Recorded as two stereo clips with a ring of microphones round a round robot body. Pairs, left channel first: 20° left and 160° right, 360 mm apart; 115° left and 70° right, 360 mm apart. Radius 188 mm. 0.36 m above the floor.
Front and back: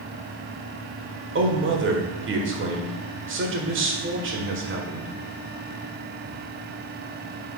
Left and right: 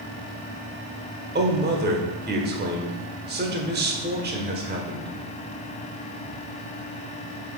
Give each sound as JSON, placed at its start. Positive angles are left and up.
{"t": 1.4, "sound": "a man speaking", "azimuth_deg": -120, "distance_m": 1.4}